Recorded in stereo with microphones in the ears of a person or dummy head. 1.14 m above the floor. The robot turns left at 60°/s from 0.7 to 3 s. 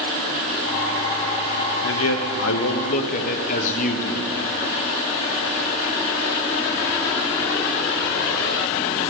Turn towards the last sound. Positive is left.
turn(degrees=45)